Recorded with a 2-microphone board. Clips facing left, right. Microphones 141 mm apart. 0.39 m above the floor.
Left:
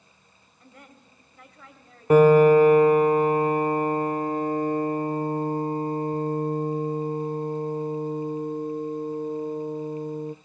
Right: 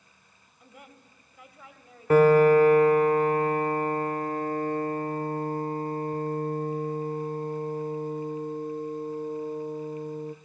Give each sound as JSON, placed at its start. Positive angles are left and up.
{"t": 0.6, "sound": "a woman speaking", "side_deg": -10, "distance_m": 2.0}
{"t": 2.1, "sound": "a piano", "side_deg": 15, "distance_m": 0.5}